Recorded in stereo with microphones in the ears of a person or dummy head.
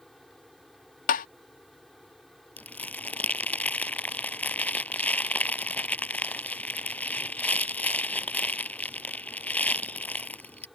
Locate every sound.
0.0 s a fan: centre (ahead or behind)
1.1 s tapping: 40° left (ahead or behind)
2.6 s crumpling: 10° left (ahead or behind)